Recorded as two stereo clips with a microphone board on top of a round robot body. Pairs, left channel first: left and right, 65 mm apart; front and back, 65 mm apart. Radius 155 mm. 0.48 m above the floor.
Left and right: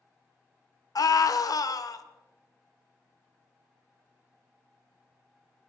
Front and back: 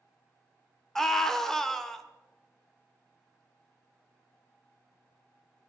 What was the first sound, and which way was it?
A scream, 85° left.